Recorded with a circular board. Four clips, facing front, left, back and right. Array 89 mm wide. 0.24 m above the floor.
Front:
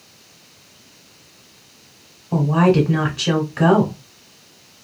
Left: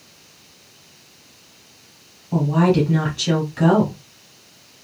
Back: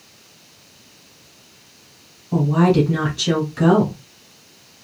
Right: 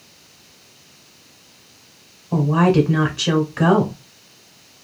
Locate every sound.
2.3 s a woman speaking: 35° right, 1.3 m